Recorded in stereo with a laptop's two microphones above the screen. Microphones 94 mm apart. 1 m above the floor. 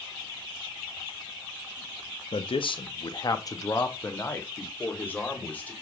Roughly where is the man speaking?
Left.